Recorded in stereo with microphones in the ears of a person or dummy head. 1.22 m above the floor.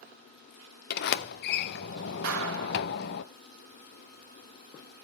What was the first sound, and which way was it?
A sliding door, 50° left (ahead or behind).